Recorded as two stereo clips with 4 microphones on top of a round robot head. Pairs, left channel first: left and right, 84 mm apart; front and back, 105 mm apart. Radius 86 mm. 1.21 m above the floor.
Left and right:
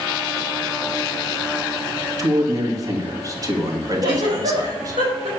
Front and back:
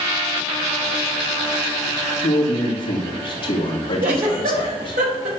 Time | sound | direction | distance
2.2 | a man speaking | 45° right | 2.5 m
4.0 | a giggle | 140° right | 4 m